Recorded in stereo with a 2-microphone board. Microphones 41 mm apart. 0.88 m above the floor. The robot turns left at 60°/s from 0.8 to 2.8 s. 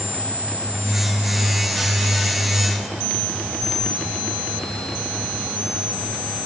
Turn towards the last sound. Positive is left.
No sound to turn to.